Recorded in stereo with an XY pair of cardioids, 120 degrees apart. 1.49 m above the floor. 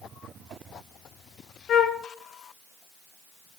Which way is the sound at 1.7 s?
55° left.